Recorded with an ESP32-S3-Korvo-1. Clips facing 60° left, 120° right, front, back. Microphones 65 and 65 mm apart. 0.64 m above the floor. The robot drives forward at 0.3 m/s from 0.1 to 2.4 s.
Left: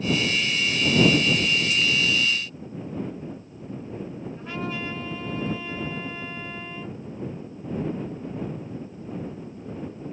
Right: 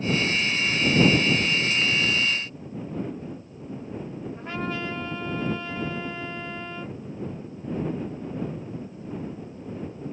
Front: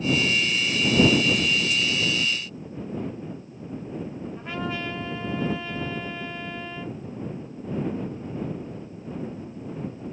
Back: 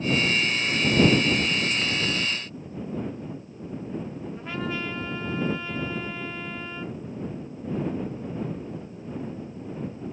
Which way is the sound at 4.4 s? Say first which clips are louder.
Right 1 dB, even; 90° right.